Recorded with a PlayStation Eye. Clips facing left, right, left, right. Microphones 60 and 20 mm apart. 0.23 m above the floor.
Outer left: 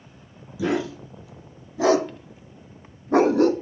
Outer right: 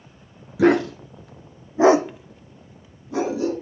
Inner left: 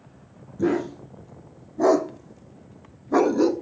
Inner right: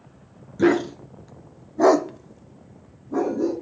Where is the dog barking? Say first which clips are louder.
Outer right 8 dB, inner right 4 dB; 60° right (ahead or behind), 1.3 m; by 3.5 s 65° left (ahead or behind), 0.9 m.